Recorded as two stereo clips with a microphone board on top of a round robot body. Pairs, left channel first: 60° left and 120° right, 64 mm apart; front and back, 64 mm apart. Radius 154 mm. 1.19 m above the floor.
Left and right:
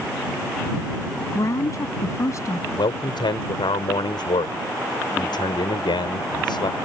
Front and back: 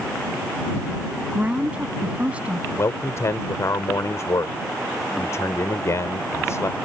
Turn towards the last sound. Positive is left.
turn(degrees=50)